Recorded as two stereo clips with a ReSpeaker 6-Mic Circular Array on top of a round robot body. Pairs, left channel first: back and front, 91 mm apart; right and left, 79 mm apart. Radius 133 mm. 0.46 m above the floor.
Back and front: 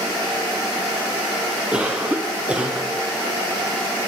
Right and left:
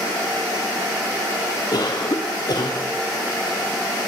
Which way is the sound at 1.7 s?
75° right.